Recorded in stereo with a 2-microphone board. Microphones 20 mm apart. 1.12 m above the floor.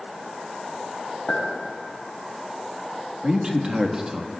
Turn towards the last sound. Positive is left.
turn(degrees=-35)  # may be behind; listen again after turning